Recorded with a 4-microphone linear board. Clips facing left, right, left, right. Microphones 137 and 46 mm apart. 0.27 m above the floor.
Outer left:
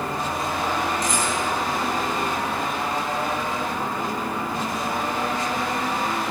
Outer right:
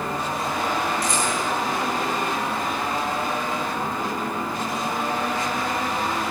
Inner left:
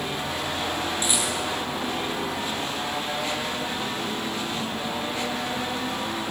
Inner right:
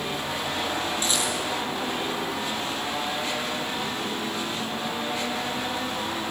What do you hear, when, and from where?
1.0 s a rattle: 15° left (ahead or behind), 9.5 m